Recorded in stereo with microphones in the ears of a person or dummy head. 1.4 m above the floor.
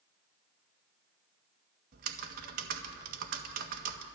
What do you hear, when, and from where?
1.9 s typing on a keyboard: 50° right (ahead or behind), 1.8 m